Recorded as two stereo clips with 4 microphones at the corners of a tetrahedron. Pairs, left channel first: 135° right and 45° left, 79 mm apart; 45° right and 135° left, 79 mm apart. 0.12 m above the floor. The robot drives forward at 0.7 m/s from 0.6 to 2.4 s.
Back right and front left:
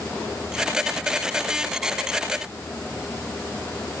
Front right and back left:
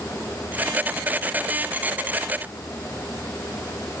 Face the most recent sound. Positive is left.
No sound to turn to.